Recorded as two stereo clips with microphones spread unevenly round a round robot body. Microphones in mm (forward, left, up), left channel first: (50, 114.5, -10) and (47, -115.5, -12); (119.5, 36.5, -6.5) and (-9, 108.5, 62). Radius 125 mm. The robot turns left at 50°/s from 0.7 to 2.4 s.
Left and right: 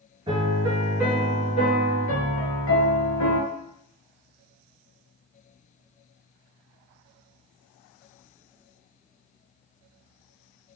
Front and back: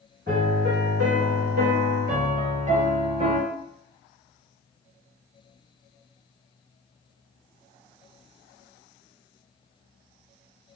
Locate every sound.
0.3 s a piano: 160° right, 1.1 m; by 3.4 s 115° left, 1.1 m